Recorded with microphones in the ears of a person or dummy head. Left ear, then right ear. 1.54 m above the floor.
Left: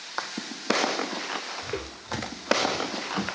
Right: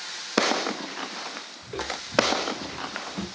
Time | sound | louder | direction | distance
1.6 | footsteps | right 2 dB | 45° left (ahead or behind) | 3 m